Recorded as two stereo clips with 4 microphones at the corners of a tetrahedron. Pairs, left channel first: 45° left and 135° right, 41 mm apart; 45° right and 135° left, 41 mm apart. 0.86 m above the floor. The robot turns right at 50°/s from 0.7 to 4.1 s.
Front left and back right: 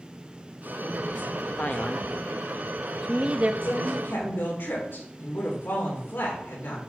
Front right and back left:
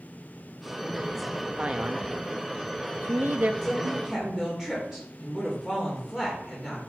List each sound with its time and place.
1.6 s a man speaking: 80° left, 0.8 m; by 3.5 s 175° left, 0.8 m
3.6 s a woman speaking: 35° left, 3 m; by 6.8 s 55° left, 3 m